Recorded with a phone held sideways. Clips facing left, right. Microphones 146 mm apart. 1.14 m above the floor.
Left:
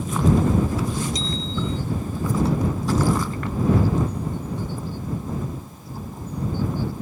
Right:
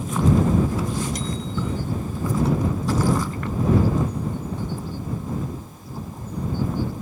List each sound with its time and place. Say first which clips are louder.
1.1 s a bicycle bell: even; 65° right (ahead or behind)